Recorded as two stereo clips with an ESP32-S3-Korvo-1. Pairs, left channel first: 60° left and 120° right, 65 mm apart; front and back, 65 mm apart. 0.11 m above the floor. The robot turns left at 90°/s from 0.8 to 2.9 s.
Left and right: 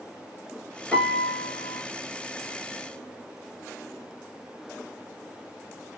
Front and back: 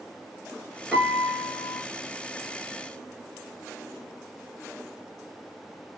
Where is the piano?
120° left, 1.0 m; by 1.8 s 35° left, 1.0 m.